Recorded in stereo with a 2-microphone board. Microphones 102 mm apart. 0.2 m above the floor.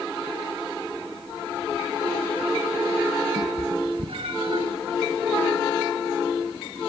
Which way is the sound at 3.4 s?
70° right (ahead or behind).